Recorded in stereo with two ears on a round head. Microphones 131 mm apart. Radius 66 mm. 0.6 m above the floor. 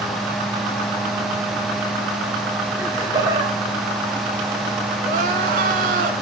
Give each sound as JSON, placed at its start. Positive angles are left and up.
{"t": 2.8, "sound": "laughter", "side_deg": -20, "distance_m": 1.3}
{"t": 5.0, "sound": "crying", "side_deg": -70, "distance_m": 1.5}